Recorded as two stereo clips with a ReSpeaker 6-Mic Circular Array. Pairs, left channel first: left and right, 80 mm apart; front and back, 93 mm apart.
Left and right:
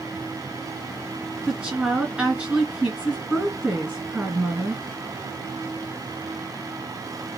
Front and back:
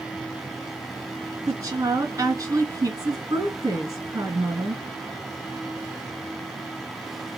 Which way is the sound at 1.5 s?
155° right.